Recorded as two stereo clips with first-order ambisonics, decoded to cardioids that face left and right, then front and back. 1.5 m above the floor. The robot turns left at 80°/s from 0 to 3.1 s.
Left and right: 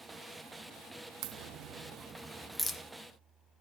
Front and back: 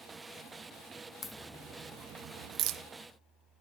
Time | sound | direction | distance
1.2 | a crack | 75° right | 0.5 m